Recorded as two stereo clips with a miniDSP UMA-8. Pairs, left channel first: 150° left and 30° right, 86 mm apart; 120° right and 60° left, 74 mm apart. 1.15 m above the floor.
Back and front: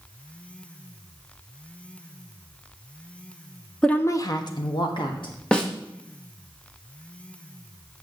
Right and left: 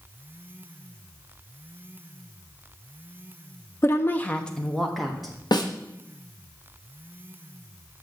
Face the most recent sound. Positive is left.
turn(degrees=-130)